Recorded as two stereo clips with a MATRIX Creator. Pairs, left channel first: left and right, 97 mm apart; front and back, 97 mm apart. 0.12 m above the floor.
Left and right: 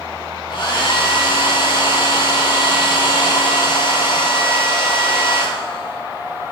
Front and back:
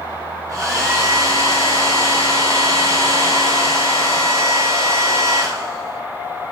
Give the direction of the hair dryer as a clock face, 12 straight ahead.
8 o'clock.